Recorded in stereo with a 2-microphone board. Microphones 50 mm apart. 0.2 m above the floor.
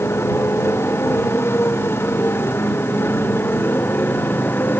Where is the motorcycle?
55° left (ahead or behind); by 4.8 s 45° left (ahead or behind).